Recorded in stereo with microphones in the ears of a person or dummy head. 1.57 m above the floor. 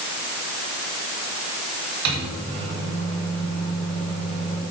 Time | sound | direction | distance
2.0 | a microwave | 80° right | 2 m